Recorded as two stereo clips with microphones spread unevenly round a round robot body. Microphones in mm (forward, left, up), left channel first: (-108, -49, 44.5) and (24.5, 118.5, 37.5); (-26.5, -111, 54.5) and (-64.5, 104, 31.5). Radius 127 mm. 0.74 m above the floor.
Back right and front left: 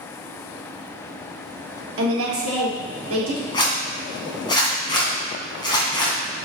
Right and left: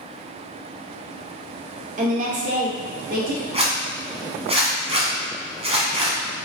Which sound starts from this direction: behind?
A zipper, at 3.5 s.